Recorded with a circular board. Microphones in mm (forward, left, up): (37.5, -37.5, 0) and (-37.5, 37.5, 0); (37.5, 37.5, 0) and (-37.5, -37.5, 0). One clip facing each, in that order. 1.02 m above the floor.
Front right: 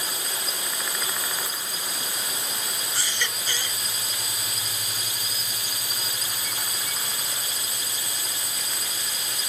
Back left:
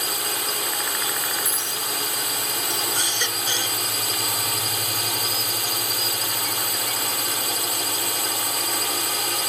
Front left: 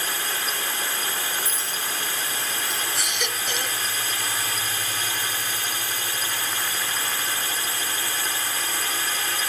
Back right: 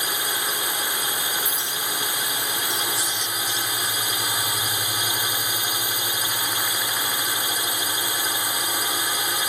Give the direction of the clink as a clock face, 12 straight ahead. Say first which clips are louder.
Back left 4 dB, back right 1 dB; 8 o'clock.